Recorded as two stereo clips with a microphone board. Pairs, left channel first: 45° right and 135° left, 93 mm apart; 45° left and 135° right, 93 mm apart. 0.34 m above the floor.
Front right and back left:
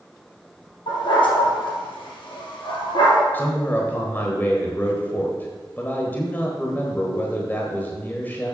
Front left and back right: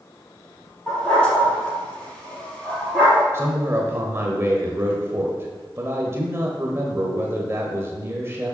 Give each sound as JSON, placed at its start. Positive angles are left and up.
{"t": 0.9, "sound": "a dog barking", "azimuth_deg": -35, "distance_m": 3.5}
{"t": 3.3, "sound": "a man speaking", "azimuth_deg": -100, "distance_m": 1.2}